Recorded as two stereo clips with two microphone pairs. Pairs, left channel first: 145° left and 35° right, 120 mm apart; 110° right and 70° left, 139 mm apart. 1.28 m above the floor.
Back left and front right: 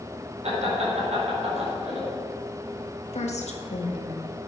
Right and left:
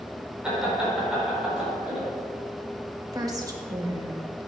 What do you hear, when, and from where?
0.4 s laughter: 15° right, 4.5 m
3.1 s a woman speaking: 130° left, 1.7 m